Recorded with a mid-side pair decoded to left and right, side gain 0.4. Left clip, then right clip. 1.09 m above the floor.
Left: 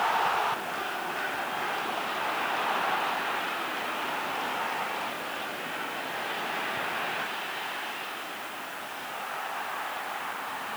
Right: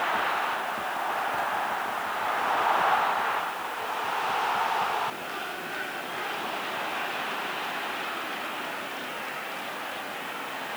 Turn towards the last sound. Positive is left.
No sound to turn to.